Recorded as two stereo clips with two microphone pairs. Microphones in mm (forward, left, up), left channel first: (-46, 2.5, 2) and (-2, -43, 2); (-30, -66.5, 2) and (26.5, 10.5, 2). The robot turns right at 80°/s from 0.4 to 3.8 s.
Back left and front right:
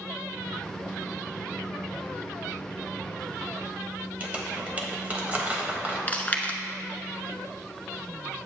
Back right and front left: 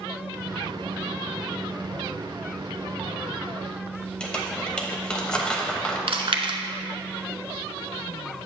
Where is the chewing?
70° left, 0.7 m.